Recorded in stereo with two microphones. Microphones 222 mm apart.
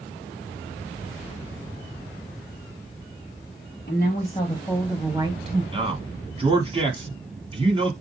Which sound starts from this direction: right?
A man speaking, at 5.7 s.